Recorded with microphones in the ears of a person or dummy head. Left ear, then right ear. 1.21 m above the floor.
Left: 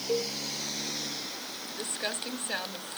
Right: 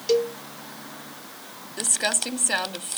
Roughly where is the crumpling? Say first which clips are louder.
Right 10 dB; right.